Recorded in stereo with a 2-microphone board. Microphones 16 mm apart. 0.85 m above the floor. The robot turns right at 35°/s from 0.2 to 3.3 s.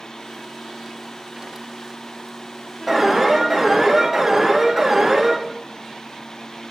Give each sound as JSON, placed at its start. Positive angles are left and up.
{"t": 2.9, "sound": "an alarm", "side_deg": -10, "distance_m": 5.0}